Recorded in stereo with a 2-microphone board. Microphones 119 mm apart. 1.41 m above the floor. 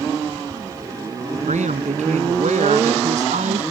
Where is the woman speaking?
80° right.